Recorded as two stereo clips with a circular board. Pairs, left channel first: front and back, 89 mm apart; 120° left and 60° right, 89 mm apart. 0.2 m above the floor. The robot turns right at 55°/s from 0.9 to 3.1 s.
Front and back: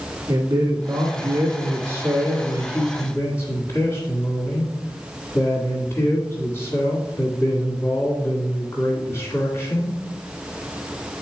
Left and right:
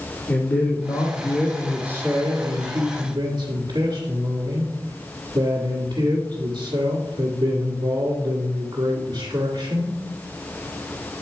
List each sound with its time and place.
0.3 s a man speaking: 175° right, 1.7 m; by 9.9 s 55° right, 1.7 m